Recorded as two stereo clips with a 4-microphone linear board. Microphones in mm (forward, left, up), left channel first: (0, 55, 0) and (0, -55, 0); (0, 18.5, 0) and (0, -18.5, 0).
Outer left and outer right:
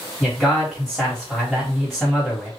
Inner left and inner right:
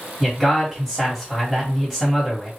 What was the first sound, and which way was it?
A man speaking, 5° left (ahead or behind).